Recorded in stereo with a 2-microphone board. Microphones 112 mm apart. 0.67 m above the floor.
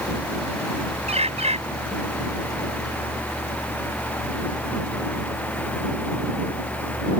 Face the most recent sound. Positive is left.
turn(degrees=-70)  # may be behind; listen again after turning